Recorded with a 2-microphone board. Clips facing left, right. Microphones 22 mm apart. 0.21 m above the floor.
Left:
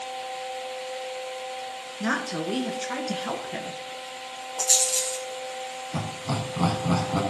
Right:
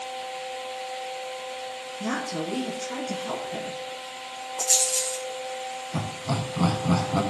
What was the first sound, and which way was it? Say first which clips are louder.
A woman speaking: left 2 dB; 65° left (ahead or behind).